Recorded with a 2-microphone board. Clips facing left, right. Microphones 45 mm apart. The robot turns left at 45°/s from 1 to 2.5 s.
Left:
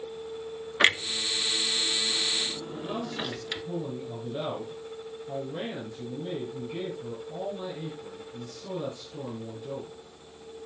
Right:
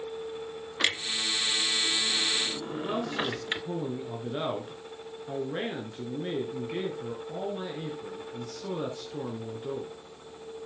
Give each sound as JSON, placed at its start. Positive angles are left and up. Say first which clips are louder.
{"t": 0.8, "sound": "a clunk", "louder": "left 5 dB", "side_deg": 35, "distance_m": 0.8}
{"t": 2.7, "sound": "a man speaking", "louder": "right 5 dB", "side_deg": -55, "distance_m": 2.5}